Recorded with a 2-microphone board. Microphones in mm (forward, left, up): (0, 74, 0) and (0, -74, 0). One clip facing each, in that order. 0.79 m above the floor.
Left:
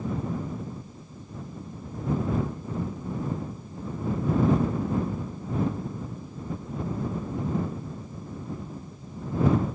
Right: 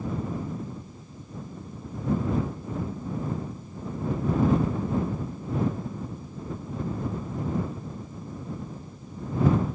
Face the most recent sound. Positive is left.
No sound to turn to.